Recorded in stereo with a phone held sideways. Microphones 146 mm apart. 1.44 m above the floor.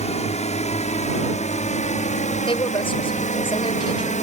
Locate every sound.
0.0 s a drone: 55° left (ahead or behind); by 4.2 s 60° left (ahead or behind)
2.5 s a woman speaking: 40° left (ahead or behind)